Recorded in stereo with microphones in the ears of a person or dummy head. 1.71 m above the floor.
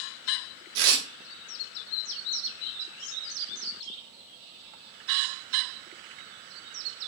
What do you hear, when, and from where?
0.8 s tearing paper: 65° right (ahead or behind), 0.7 m